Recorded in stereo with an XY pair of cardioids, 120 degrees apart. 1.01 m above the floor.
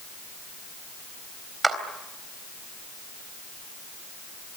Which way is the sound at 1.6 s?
15° right.